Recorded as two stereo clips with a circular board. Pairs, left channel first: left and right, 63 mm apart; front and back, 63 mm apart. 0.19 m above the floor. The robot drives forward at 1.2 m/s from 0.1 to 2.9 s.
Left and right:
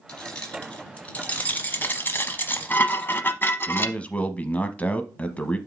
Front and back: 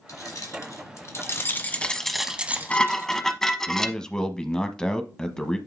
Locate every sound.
0.1 s keys jangling: 15° left, 2.5 m; by 3.2 s 145° left, 1.4 m
2.3 s dishes clattering: 30° left, 1.3 m; by 4.0 s 80° left, 0.9 m
3.7 s a man speaking: 65° left, 1.0 m